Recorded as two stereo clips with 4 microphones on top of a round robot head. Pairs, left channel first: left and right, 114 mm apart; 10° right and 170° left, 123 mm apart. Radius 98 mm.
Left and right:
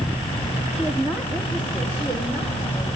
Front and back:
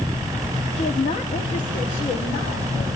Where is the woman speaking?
5° right, 1.3 m; by 2.9 s 10° right, 3 m.